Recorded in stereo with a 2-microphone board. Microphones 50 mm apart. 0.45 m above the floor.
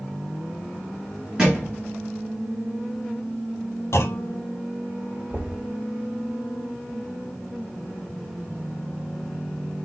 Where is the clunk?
70° left (ahead or behind), 1.2 m.